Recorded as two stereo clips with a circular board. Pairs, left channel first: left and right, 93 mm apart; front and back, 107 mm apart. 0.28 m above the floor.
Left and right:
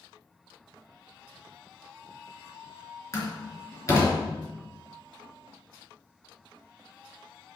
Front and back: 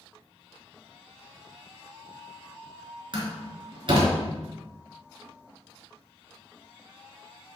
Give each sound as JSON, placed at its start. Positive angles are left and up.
{"t": 3.1, "sound": "a door slam", "azimuth_deg": 145, "distance_m": 3.0}